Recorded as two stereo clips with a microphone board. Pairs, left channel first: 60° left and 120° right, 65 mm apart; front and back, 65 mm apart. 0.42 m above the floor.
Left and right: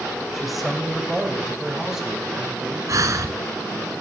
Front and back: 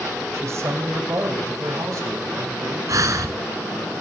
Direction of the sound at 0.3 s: 150° left.